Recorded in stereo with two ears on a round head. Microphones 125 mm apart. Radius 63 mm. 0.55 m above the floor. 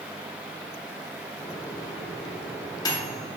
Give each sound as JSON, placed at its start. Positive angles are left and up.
{"t": 1.4, "sound": "a microwave", "side_deg": 25, "distance_m": 0.7}